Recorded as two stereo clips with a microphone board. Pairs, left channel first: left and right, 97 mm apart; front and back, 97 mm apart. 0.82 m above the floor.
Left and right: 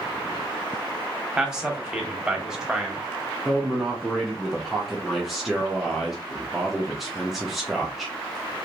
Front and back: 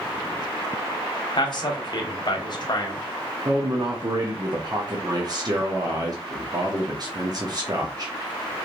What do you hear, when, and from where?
1.4 s a man speaking: 10° right, 0.9 m
3.5 s a man speaking: 175° right, 0.7 m